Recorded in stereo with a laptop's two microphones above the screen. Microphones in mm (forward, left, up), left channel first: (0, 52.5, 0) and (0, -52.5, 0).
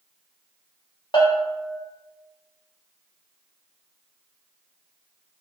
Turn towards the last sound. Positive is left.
turn(degrees=45)  # may be behind; listen again after turning